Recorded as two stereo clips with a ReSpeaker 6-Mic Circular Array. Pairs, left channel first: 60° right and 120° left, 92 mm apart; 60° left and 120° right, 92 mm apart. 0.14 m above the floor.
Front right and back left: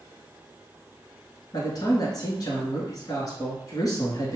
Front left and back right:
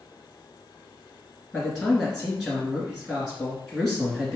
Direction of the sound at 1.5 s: 40° right.